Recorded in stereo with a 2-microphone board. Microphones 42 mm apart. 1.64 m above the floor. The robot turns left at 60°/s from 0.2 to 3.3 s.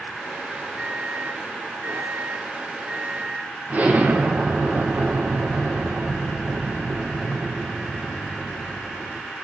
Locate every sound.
0.8 s a microwave: 20° right, 0.7 m; by 3.5 s 175° right, 0.7 m
3.7 s an explosion: 35° right (ahead or behind), 2 m